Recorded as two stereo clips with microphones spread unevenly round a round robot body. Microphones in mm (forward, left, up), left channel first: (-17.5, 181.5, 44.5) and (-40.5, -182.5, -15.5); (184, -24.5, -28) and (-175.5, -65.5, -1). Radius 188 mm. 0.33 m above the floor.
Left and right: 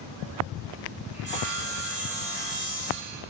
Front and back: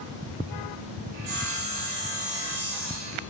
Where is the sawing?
Straight behind, 1.8 m.